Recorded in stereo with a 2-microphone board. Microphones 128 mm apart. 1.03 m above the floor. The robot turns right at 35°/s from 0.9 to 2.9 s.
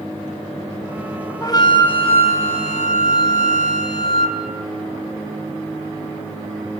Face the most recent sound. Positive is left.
turn(degrees=80)